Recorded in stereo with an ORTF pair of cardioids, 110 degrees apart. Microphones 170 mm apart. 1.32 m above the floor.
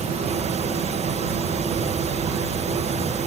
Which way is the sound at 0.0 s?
40° right.